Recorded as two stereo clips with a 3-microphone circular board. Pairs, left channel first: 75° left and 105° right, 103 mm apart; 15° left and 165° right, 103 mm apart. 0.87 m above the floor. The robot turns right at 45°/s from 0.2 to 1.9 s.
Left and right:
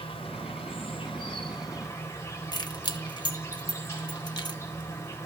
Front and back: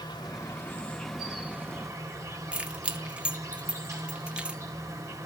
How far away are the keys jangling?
About 1.1 m.